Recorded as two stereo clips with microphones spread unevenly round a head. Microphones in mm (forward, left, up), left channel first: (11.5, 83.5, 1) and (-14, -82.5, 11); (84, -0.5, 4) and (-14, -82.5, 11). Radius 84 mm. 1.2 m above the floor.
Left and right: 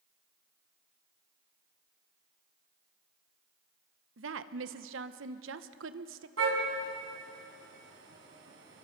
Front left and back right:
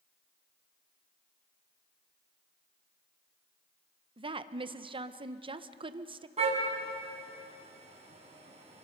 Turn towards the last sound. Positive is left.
turn(degrees=-105)